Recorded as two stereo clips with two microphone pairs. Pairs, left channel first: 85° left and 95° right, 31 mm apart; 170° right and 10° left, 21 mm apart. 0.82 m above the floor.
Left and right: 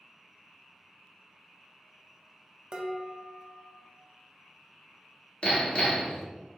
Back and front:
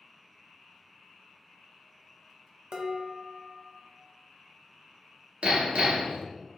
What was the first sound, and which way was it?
Dishes clattering, 35° right.